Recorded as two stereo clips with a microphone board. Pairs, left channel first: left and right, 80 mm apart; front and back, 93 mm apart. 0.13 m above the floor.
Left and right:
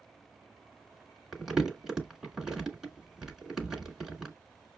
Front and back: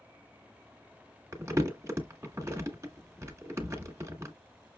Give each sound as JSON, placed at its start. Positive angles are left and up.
{"t": 1.3, "sound": "crumpling", "azimuth_deg": -170, "distance_m": 1.8}